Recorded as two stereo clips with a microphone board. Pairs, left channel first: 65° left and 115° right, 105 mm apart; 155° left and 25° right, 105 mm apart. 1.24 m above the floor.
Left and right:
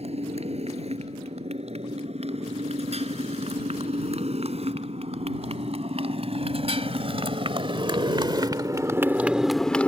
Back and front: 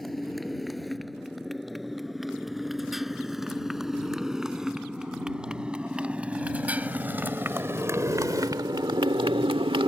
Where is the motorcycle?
115° right; by 9.9 s 5° right.